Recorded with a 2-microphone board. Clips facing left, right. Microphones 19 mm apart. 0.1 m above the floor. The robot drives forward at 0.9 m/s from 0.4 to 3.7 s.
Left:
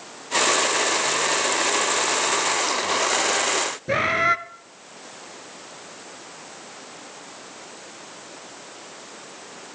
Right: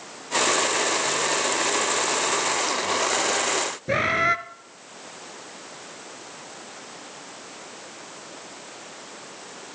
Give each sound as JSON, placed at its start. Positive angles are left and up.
{"t": 3.9, "sound": "a bird", "side_deg": 0, "distance_m": 0.7}